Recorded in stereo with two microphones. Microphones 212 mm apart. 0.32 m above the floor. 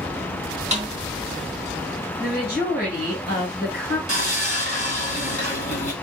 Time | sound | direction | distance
0.7 | a snare drum | 35° right (ahead or behind) | 1.3 m
2.2 | a woman speaking | 45° left (ahead or behind) | 2.5 m
4.1 | sawing | 35° left (ahead or behind) | 2 m